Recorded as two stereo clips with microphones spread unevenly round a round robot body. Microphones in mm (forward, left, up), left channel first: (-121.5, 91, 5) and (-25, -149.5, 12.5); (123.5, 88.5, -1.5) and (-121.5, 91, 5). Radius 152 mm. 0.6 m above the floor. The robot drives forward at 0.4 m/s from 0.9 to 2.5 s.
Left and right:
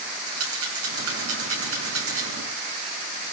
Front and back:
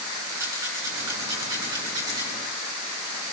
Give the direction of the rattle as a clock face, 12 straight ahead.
3 o'clock.